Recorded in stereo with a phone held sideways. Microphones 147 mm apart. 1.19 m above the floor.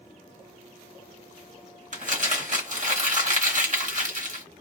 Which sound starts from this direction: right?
Crumpling, at 1.9 s.